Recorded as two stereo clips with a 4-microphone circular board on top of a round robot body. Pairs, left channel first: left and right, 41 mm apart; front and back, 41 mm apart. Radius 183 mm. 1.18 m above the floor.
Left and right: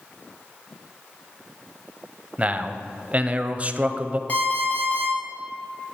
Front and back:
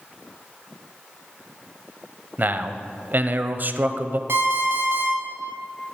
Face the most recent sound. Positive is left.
turn(degrees=150)